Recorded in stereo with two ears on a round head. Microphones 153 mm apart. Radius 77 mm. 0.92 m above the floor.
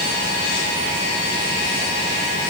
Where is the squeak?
I don't hear a squeak.